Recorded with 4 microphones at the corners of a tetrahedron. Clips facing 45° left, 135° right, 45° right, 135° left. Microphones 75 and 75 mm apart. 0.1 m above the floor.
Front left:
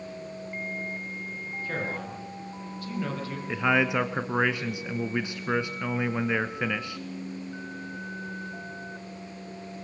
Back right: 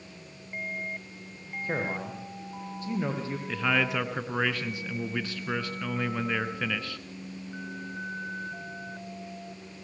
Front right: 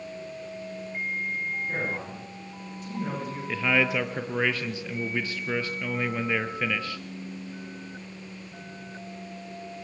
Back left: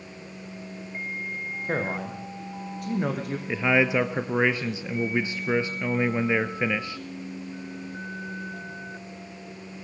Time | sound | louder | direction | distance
1.6 | a man speaking | back right 2 dB, back left 3 dB | 160° left | 5.5 m
3.5 | a man speaking | front left 4 dB, back left 3 dB | 90° left | 1.1 m